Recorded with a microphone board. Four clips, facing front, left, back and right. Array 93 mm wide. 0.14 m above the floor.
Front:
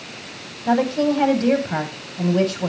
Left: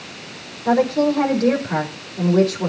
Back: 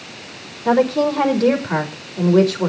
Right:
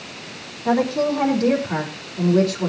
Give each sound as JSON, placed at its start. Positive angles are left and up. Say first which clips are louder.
{"t": 0.7, "sound": "a woman speaking", "louder": "left 2 dB, back 3 dB", "azimuth_deg": -170, "distance_m": 4.5}